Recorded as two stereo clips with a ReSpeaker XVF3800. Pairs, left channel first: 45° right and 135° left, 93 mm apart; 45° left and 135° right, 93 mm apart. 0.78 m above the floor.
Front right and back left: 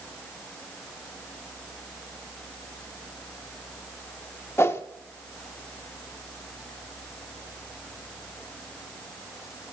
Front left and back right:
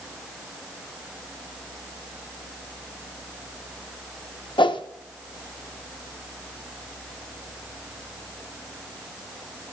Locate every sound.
4.6 s a whoosh: 15° left, 0.5 m